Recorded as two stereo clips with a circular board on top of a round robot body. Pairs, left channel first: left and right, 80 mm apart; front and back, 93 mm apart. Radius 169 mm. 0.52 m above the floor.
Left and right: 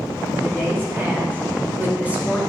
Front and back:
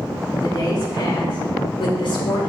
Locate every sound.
0.4 s a woman speaking: 40° right, 3 m; by 2.4 s 15° right, 3 m